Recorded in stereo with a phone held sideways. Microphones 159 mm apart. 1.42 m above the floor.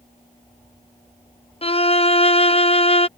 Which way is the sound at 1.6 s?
40° left (ahead or behind).